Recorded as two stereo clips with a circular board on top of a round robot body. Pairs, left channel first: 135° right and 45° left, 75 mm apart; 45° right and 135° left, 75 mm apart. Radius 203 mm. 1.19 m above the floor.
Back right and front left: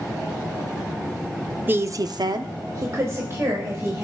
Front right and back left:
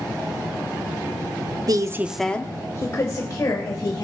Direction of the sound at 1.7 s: 110° left.